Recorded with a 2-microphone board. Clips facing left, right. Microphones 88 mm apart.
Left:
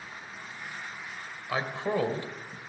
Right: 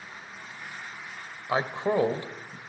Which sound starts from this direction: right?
A man speaking, at 1.5 s.